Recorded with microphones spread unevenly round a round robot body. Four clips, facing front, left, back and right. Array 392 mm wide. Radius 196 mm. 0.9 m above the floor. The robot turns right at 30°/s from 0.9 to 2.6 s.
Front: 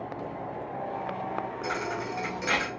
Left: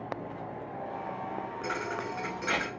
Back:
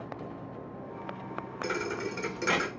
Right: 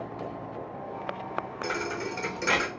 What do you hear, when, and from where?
1.6 s a thud: 165° right, 0.6 m; by 2.7 s 135° right, 0.6 m